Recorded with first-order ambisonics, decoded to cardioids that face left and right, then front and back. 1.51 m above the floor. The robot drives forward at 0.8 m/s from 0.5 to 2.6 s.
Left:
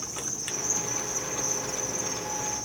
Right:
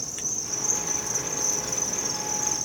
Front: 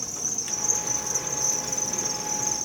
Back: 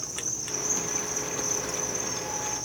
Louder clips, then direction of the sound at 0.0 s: Right 2 dB, front 3 dB; 30° right.